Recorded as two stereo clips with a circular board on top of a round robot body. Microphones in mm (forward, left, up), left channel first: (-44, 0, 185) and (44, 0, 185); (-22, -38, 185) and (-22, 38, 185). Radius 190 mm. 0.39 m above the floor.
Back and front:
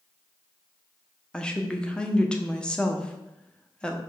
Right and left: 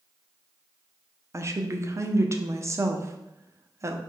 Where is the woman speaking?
105° left, 1.1 m.